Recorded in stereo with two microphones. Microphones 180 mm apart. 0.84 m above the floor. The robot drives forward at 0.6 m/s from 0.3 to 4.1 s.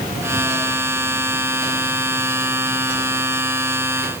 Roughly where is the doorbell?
I don't hear a doorbell.